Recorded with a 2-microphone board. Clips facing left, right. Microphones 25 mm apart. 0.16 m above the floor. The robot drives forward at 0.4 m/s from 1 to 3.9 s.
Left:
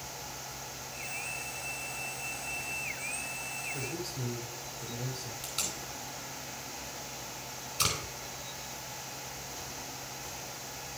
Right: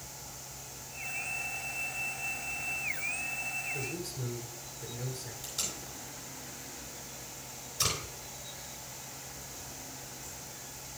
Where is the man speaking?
25° left (ahead or behind), 1.3 m.